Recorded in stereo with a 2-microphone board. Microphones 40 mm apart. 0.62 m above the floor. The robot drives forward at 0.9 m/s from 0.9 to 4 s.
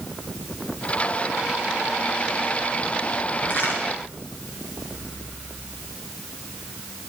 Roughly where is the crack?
Left.